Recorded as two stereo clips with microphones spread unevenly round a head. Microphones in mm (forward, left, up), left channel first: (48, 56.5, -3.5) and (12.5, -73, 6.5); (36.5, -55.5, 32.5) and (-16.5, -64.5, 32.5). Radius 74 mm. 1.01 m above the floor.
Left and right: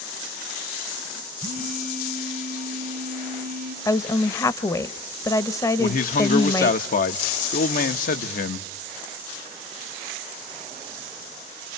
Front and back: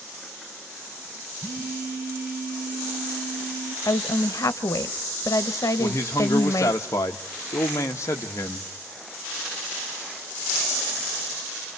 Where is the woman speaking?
10° left, 0.9 m.